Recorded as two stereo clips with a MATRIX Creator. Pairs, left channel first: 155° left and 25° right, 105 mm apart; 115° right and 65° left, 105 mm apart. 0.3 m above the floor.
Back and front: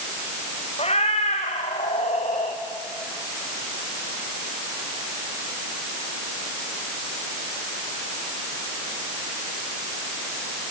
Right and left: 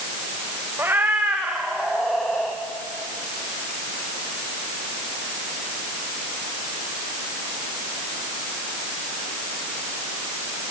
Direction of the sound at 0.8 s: 140° left.